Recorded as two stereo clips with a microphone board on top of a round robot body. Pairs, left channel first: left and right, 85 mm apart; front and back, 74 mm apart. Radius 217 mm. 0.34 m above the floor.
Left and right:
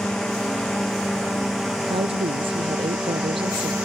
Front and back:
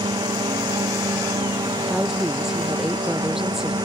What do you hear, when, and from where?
0.0 s a drone: 175° left; by 3.8 s 170° right
1.9 s a woman speaking: 95° right